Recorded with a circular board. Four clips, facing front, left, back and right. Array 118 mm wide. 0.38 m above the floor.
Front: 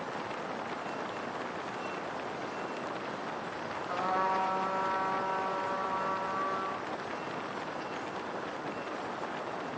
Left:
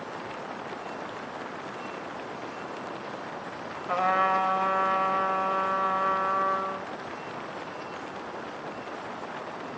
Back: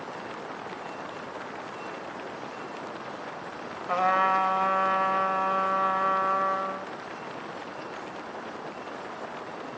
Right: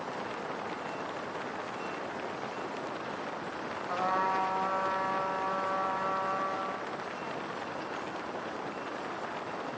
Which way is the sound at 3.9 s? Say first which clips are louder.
Left 6 dB, back 7 dB; 145° left.